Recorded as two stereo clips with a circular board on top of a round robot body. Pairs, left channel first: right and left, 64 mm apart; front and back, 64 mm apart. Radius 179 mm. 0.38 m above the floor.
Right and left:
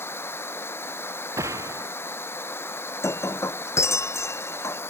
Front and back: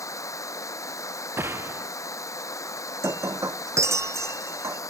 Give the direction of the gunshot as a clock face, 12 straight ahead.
8 o'clock.